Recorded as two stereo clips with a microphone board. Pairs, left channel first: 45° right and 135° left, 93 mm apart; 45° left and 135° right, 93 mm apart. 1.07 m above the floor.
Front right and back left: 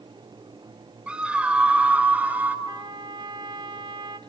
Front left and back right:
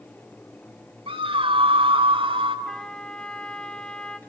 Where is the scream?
145° right, 3.5 m; by 2.5 s 155° right, 4.5 m.